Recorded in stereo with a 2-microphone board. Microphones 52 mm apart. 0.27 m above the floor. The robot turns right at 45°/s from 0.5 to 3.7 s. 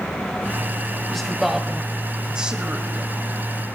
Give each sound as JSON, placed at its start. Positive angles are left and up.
{"t": 1.1, "sound": "a man speaking", "side_deg": 5, "distance_m": 1.3}